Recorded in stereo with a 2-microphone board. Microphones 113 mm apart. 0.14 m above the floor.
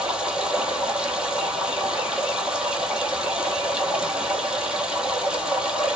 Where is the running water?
10° right (ahead or behind), 1.0 m.